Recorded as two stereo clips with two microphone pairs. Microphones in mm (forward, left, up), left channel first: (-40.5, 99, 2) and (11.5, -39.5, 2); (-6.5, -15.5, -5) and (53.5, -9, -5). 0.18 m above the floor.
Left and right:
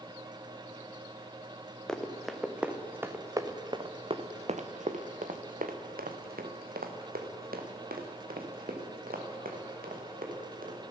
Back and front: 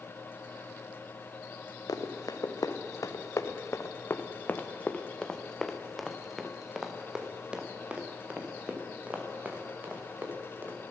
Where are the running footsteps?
165° right, 1.8 m; by 10.8 s 50° right, 4 m.